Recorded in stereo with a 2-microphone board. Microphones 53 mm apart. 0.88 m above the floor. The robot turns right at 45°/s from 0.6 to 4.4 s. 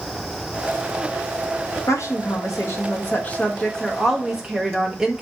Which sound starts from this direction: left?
A woman speaking, at 1.9 s.